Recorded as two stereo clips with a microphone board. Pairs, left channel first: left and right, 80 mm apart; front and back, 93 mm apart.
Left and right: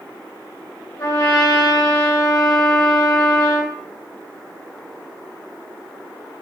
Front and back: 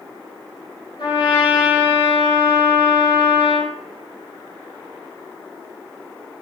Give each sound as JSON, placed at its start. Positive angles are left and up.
{"t": 1.0, "sound": "a trumpet", "azimuth_deg": 35, "distance_m": 8.5}